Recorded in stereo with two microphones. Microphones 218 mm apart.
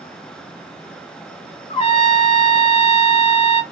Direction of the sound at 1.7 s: 25° left (ahead or behind).